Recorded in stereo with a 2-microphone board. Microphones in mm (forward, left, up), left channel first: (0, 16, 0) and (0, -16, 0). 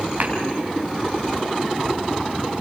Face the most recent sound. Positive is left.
turn(degrees=-55)  # may be behind; listen again after turning